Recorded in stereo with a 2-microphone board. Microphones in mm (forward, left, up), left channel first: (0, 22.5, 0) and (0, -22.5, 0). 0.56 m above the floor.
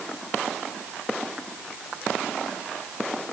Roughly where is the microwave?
I don't hear a microwave.